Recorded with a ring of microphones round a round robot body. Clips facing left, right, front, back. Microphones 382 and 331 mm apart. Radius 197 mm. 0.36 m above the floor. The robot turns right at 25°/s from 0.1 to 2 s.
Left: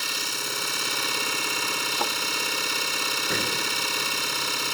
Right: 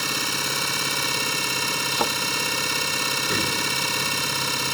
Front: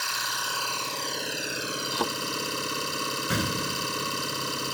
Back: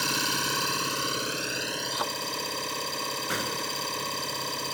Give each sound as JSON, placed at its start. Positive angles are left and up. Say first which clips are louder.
{"t": 0.0, "sound": "an engine running", "louder": "right 6 dB, back 9 dB", "azimuth_deg": -125}
{"t": 1.9, "sound": "a thud", "louder": "right 6 dB, front 10 dB", "azimuth_deg": -65}
{"t": 3.3, "sound": "an explosion", "louder": "right 2 dB, front 6 dB", "azimuth_deg": -15}